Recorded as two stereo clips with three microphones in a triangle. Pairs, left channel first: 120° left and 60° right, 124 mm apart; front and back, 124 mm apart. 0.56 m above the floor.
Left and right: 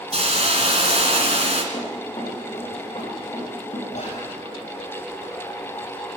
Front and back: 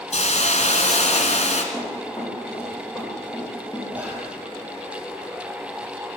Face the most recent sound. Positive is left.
turn(degrees=105)